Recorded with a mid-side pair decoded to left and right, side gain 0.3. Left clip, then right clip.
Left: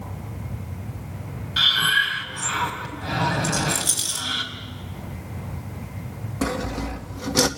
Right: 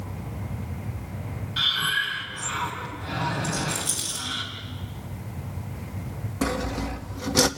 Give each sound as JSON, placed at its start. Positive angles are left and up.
{"t": 1.6, "sound": "breathing", "azimuth_deg": 60, "distance_m": 4.0}
{"t": 3.4, "sound": "a rattle", "azimuth_deg": 60, "distance_m": 7.5}
{"t": 6.4, "sound": "sawing", "azimuth_deg": 0, "distance_m": 2.0}